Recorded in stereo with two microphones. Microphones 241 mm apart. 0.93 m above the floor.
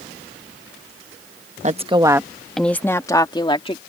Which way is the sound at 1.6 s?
30° right (ahead or behind).